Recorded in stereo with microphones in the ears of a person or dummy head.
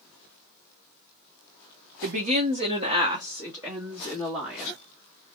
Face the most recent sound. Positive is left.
turn(degrees=-20)  # may be behind; listen again after turning